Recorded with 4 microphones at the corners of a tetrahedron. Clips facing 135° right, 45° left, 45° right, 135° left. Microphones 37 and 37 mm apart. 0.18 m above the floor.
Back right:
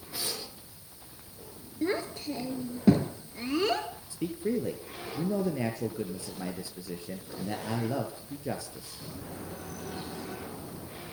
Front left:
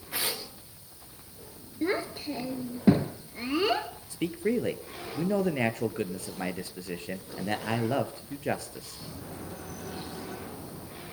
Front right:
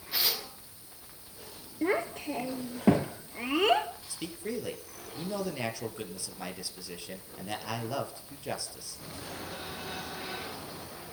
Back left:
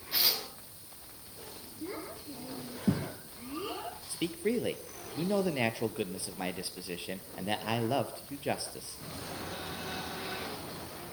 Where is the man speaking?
70° left, 3 m.